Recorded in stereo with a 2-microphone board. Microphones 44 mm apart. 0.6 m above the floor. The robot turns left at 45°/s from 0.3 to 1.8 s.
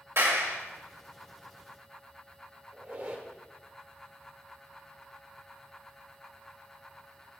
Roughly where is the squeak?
Right.